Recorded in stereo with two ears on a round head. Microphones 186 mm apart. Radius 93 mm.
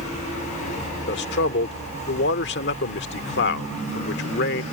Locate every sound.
1.1 s a man speaking: 50° left (ahead or behind)